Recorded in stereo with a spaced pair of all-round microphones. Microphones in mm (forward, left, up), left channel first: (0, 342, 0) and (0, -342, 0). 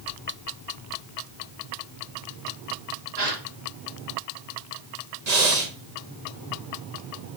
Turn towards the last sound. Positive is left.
turn(degrees=-70)  # may be behind; listen again after turning